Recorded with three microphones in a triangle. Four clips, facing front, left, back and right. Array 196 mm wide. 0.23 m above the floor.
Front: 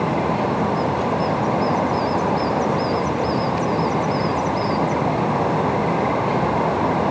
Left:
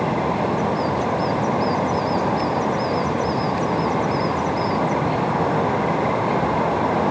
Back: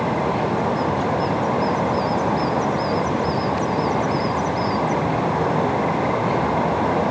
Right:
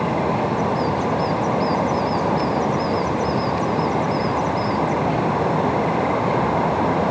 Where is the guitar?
I don't hear a guitar.